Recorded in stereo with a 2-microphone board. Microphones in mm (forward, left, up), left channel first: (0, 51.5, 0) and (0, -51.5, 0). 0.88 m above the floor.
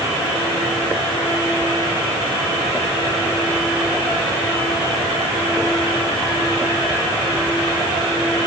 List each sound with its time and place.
Only background noise.